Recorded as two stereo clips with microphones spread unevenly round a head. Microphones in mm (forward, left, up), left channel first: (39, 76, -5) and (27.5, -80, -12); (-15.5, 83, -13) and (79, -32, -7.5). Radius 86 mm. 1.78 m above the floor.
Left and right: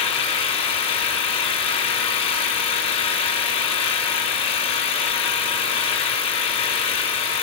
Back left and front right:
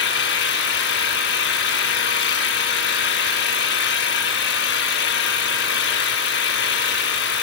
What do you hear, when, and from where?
0.0 s an engine running: 145° left, 1.8 m